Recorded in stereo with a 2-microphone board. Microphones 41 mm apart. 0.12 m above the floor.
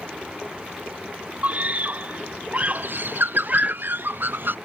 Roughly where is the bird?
Right.